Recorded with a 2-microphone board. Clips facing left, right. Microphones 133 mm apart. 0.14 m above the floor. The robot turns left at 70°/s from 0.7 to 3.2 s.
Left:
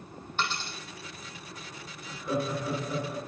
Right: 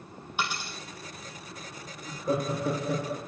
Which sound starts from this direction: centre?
A dropped coin, at 0.4 s.